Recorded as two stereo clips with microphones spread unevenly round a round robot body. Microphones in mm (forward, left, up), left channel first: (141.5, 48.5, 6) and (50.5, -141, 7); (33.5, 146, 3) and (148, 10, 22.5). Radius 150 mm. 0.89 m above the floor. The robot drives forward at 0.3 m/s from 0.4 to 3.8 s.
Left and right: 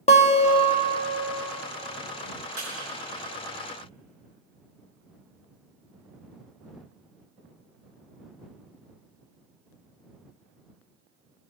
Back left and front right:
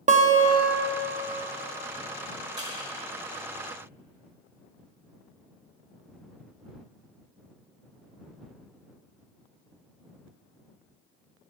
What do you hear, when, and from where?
0.1 s a guitar: straight ahead, 0.9 m
2.6 s crushing: 155° right, 3 m